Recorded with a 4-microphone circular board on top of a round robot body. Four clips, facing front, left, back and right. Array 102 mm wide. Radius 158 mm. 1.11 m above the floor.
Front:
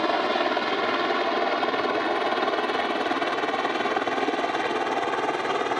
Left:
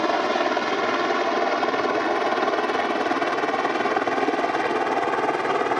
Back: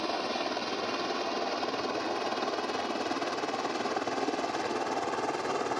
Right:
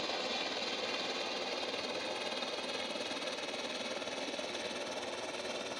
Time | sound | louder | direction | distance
0.0 | a helicopter | left 18 dB, front 9 dB | 60° left | ?